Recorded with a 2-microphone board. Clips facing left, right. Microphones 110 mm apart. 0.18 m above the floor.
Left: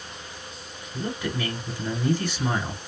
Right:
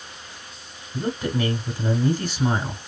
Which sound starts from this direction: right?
A man speaking, at 0.9 s.